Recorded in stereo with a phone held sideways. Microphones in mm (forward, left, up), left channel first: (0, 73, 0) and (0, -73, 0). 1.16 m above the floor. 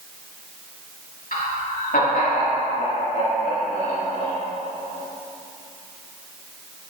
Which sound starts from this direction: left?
Laughter, at 1.3 s.